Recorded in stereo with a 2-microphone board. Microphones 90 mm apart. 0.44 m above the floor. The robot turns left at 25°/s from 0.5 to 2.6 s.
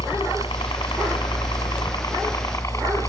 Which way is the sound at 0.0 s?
90° left.